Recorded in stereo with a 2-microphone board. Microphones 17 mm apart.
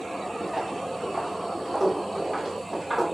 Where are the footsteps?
20° right (ahead or behind), 5 m; by 3.0 s 15° right (ahead or behind), 6.5 m.